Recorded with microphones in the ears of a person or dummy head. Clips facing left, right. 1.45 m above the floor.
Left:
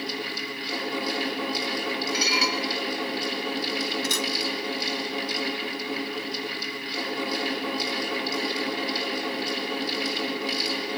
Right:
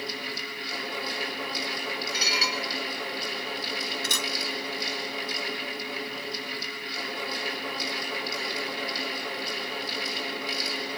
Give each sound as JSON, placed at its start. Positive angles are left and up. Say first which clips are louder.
{"t": 0.0, "sound": "a fan", "louder": "left 4 dB", "side_deg": 65, "distance_m": 7.0}
{"t": 2.1, "sound": "dishes clattering", "louder": "left 5 dB", "side_deg": 75, "distance_m": 3.5}
{"t": 4.0, "sound": "a camera shutter", "louder": "left 5 dB", "side_deg": -65, "distance_m": 1.8}